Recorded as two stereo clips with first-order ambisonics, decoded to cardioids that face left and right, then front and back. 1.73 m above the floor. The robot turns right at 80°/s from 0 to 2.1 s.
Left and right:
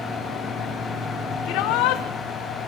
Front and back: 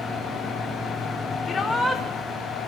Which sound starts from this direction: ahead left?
A shout, at 1.4 s.